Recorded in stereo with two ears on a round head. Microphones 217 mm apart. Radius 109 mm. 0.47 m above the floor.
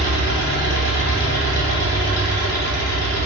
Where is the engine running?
45° left (ahead or behind), 1.5 m.